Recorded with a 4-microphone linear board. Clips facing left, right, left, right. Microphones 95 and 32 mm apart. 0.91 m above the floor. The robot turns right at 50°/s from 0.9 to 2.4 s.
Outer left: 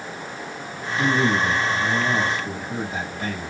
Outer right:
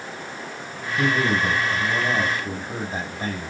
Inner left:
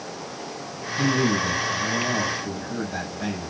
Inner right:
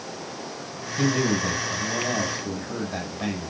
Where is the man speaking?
110° right, 5 m; by 3.5 s 35° right, 5 m.